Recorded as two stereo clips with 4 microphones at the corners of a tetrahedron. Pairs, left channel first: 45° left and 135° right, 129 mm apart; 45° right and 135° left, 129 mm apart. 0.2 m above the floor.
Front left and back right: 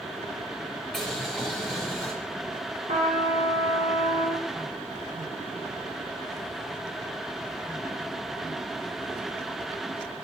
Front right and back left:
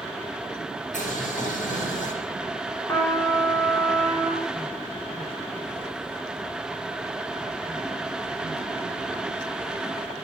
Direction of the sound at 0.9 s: 45° right.